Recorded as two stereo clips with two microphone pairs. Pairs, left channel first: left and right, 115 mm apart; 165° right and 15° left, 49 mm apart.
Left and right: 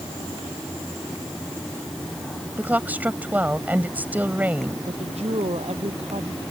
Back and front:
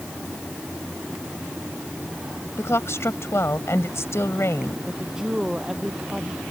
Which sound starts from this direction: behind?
A woman speaking, at 2.6 s.